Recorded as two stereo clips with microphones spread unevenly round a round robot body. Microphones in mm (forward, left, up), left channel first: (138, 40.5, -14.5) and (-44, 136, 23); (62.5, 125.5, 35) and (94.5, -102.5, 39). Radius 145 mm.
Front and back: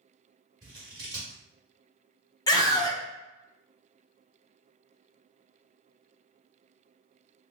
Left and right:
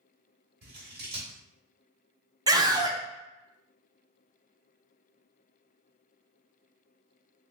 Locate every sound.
0.6 s scissors: 130° right, 1.0 m
2.5 s a scream: 25° right, 0.7 m